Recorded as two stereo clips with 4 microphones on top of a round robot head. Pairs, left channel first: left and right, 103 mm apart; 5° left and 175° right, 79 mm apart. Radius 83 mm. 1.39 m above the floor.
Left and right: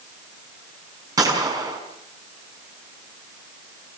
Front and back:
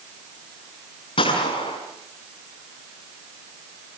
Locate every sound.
1.2 s a gunshot: 35° right, 6 m